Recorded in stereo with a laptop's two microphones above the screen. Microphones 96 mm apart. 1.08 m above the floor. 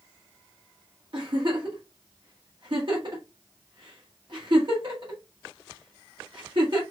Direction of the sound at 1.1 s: 50° right (ahead or behind).